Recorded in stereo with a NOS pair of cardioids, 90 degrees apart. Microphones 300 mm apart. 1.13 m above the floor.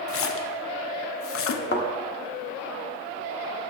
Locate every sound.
0.1 s a splash: 45° left, 0.6 m
1.7 s a thud: 40° left, 1.3 m